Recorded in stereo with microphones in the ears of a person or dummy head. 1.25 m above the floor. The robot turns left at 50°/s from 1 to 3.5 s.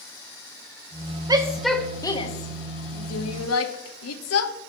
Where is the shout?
10° right (ahead or behind), 1.1 m; by 4.5 s 80° left, 1.1 m.